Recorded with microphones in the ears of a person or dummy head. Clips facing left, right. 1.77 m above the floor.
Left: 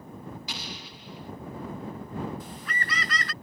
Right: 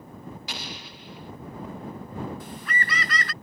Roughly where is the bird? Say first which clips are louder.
Right 3 dB; right.